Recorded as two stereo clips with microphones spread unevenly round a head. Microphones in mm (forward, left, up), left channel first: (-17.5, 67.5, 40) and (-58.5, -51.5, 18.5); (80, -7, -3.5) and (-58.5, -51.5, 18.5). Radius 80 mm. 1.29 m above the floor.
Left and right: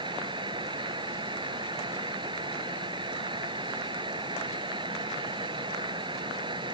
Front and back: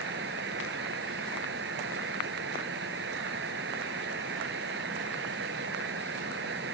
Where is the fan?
160° right.